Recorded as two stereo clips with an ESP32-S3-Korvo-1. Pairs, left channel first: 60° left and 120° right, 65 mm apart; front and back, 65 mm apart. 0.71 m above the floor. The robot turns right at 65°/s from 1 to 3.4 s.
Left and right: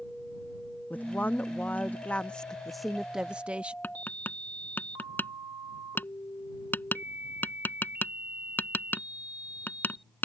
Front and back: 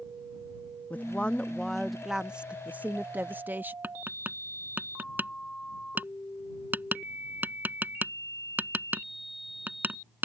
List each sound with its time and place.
0.9 s a woman speaking: 35° left; by 3.7 s 170° right
3.8 s tapping: 120° left